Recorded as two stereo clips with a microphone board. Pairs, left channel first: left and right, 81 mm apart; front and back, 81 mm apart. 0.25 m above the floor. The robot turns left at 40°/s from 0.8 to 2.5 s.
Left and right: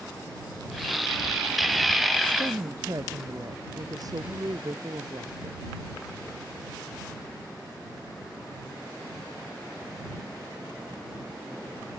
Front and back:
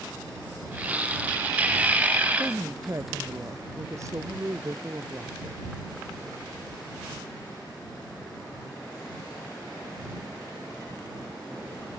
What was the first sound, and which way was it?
A woman speaking, 125° right.